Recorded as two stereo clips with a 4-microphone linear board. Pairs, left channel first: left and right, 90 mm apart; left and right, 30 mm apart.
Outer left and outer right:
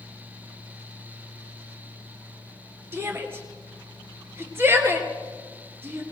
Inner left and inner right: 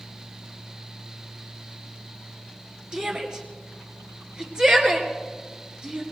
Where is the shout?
25° right (ahead or behind), 1.7 m.